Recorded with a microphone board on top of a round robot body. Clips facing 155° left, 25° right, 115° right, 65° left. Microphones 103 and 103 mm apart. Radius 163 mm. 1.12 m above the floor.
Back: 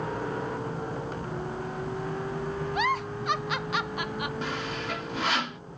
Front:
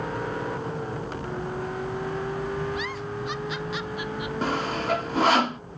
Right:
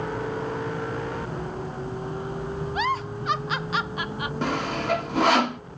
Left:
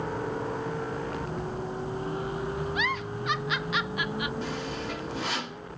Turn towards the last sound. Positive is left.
turn(degrees=-75)